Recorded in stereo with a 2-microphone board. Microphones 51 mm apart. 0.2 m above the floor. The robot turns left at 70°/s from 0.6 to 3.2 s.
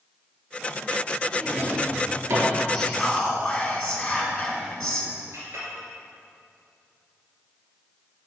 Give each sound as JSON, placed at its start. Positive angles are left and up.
{"t": 1.4, "sound": "a drawer", "side_deg": -20, "distance_m": 2.5}
{"t": 2.7, "sound": "whispering", "azimuth_deg": -160, "distance_m": 1.4}
{"t": 5.3, "sound": "a clink", "side_deg": -65, "distance_m": 2.5}